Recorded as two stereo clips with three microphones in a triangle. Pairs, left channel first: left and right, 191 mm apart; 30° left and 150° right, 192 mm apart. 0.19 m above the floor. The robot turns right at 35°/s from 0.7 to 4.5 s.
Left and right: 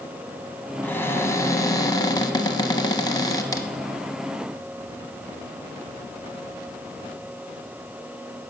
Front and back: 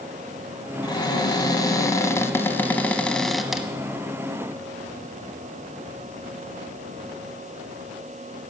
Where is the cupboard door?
30° left, 0.8 m; by 3.7 s 130° left, 0.8 m.